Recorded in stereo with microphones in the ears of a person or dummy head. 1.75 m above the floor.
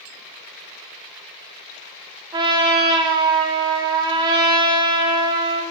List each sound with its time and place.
2.3 s a trumpet: 25° right (ahead or behind), 1.1 m